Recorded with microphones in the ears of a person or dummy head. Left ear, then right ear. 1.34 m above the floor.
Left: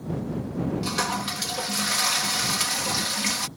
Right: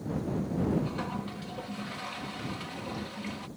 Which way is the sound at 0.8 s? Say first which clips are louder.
Left 10 dB; 70° left (ahead or behind).